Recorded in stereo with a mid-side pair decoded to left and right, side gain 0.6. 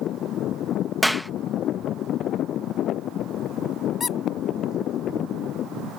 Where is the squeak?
30° left.